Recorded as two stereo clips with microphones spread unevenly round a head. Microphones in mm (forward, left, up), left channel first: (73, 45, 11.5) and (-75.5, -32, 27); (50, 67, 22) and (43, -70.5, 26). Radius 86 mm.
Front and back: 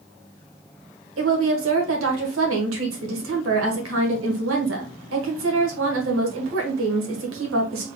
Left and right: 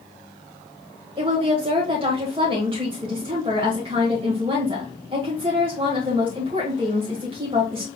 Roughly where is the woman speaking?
Behind right.